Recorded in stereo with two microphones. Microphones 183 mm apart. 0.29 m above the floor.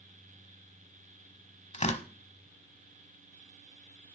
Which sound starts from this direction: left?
Tearing paper, at 1.7 s.